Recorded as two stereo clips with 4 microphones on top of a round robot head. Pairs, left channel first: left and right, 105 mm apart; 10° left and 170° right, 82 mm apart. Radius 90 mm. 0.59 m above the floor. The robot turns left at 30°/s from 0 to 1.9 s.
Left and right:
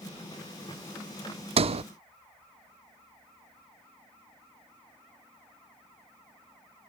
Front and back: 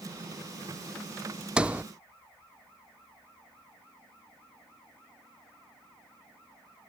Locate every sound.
1.6 s a sliding door: 90° right; by 1.8 s 100° right